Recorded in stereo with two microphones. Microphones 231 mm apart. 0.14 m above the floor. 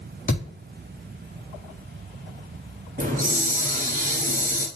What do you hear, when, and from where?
0.3 s a thud: 35° left (ahead or behind), 4 m
3.0 s a hiss: 35° right (ahead or behind), 1.9 m